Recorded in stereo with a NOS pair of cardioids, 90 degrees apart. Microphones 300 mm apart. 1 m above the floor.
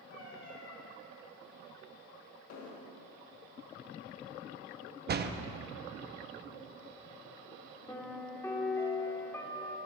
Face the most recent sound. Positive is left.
turn(degrees=10)